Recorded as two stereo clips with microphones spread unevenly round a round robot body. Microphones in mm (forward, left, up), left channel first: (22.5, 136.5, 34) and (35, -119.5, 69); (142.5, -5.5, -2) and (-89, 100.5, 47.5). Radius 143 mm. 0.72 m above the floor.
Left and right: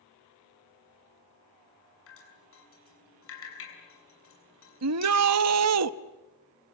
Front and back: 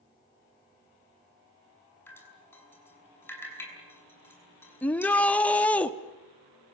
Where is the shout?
100° right, 1.0 m.